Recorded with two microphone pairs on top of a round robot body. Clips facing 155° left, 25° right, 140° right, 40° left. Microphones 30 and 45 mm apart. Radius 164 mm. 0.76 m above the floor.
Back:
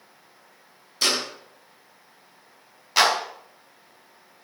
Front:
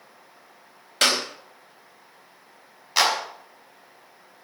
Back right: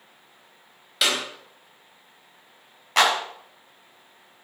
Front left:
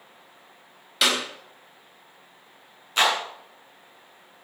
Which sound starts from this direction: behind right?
A clap, at 3.0 s.